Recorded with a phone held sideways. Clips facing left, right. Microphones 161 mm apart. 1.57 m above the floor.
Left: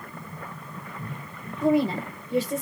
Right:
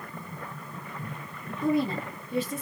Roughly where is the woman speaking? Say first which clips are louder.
Left 4 dB; left.